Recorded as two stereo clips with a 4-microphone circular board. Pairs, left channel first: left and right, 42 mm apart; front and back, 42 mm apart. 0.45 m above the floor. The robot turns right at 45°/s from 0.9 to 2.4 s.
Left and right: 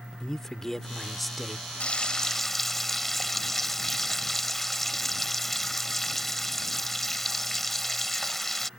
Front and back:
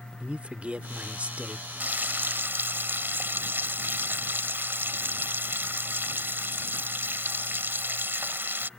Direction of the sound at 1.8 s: 145° left.